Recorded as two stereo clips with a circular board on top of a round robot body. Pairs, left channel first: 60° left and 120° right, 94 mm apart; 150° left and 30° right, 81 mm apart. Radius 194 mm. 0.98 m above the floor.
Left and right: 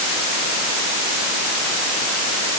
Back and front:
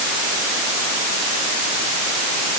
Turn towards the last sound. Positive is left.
No sound to turn to.